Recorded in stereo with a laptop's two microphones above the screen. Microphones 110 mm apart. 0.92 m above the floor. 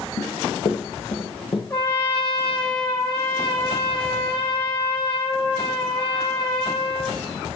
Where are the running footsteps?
50° left (ahead or behind), 2.0 m; by 1.6 s 60° left (ahead or behind), 1.6 m.